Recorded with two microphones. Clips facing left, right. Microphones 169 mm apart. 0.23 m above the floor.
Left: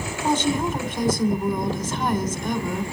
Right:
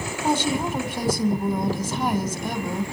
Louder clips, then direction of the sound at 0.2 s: Left 1 dB; 10° right (ahead or behind).